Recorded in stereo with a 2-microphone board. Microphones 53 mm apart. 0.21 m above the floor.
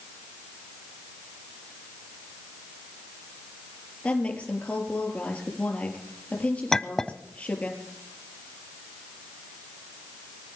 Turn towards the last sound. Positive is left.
turn(degrees=10)  # may be behind; listen again after turning